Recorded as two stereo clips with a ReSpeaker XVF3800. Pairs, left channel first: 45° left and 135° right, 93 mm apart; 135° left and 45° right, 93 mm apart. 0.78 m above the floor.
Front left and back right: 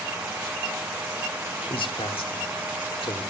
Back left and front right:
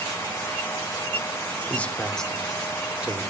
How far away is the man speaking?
About 2 m.